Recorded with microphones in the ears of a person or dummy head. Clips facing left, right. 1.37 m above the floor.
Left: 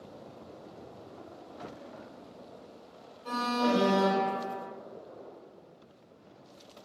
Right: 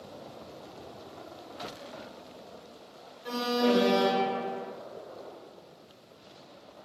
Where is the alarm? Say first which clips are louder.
Right 3 dB; 20° right (ahead or behind), 3 m.